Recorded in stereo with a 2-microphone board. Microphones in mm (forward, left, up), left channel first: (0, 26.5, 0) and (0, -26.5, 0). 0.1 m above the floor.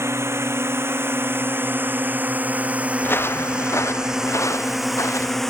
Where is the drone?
55° right (ahead or behind); by 5.5 s 5° left (ahead or behind).